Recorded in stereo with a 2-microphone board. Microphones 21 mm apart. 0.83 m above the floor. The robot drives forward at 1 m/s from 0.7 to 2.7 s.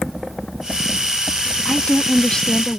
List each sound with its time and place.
1.6 s a woman speaking: 50° left (ahead or behind); by 2.8 s 35° left (ahead or behind)